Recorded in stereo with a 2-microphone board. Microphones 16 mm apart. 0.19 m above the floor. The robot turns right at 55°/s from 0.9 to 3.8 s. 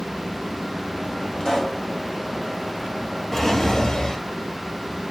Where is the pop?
45° left (ahead or behind), 2 m; by 1.8 s 20° left (ahead or behind), 2 m.